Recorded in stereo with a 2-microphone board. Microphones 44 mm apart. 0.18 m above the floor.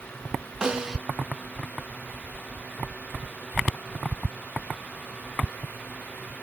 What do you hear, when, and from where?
0.6 s a snare drum: 15° right (ahead or behind), 0.7 m